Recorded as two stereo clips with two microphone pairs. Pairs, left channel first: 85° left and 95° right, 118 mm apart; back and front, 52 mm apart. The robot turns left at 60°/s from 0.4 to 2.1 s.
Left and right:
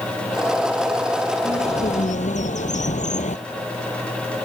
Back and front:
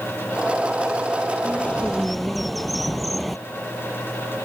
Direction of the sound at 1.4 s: 130° left.